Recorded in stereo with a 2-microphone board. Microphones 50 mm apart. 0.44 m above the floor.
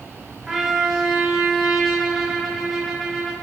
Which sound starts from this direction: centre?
A trumpet, at 0.5 s.